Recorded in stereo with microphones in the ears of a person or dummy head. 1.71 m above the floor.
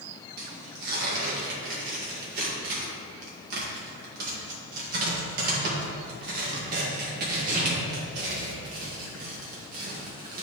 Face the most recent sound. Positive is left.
turn(degrees=-50)  # may be behind; listen again after turning